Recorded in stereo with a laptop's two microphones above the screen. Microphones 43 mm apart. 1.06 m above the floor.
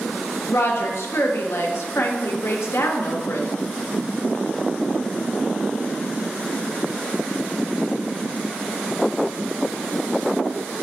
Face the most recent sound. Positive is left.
turn(degrees=75)  # may be behind; listen again after turning